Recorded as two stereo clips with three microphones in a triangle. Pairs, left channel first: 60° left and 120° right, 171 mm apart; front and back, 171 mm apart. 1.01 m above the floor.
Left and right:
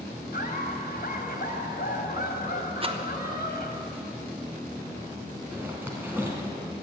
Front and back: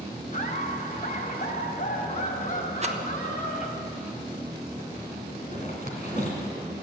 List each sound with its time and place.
0.3 s laughter: 35° left, 3 m
2.8 s a rattle: 160° right, 1.1 m
5.5 s a zipper: 40° right, 3 m